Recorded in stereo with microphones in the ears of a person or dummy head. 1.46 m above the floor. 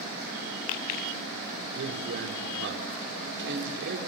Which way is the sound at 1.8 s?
60° right (ahead or behind).